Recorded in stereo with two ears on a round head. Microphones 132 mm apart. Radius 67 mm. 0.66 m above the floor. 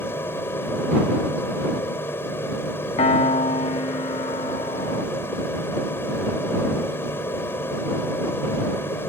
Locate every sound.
0.0 s an aircraft: 15° left (ahead or behind)
3.0 s a piano: 45° left (ahead or behind)